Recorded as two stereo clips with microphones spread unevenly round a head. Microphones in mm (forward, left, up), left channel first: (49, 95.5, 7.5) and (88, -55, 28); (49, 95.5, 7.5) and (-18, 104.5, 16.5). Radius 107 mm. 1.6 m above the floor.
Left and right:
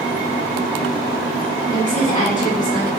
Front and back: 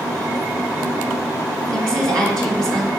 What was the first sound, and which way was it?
A woman speaking, 175° left.